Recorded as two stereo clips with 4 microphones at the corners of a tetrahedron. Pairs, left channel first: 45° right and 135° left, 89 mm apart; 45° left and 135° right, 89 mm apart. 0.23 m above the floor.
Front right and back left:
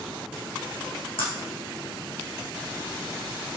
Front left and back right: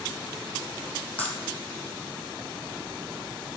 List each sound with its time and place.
1.2 s breaking glass: 25° right, 5 m